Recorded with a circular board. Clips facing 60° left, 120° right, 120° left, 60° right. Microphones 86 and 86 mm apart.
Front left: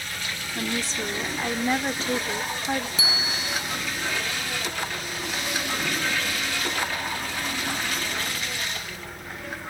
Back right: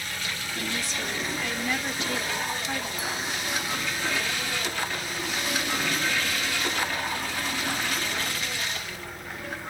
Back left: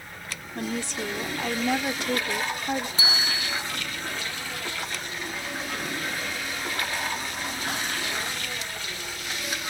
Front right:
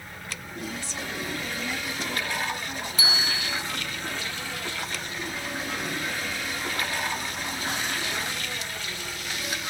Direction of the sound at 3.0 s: 55° left.